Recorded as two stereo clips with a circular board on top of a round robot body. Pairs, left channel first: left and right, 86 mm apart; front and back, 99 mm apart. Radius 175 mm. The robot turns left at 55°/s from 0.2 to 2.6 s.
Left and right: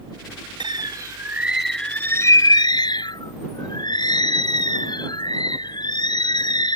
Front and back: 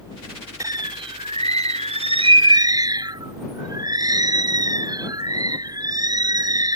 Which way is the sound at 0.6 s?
120° right.